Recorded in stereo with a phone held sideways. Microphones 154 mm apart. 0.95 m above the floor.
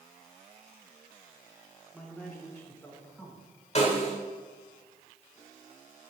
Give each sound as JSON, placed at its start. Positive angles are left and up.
{"t": 1.9, "sound": "a man speaking", "side_deg": 10, "distance_m": 3.0}
{"t": 3.8, "sound": "a snare drum", "side_deg": 45, "distance_m": 2.0}